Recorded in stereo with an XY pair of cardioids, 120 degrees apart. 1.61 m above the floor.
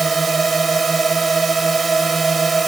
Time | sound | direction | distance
0.0 | a drone | 25° right | ?